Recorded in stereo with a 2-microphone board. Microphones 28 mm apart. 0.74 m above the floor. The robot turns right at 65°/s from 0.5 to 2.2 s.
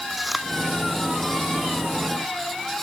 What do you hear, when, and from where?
0.1 s chewing: 10° right (ahead or behind)